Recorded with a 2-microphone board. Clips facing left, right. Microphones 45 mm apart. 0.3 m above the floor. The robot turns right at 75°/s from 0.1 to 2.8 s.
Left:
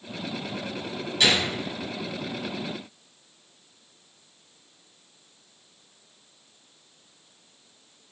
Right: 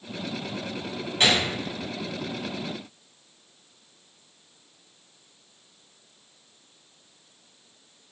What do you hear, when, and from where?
1.2 s a gunshot: 35° right (ahead or behind), 1.7 m; by 1.5 s 30° right (ahead or behind), 1.7 m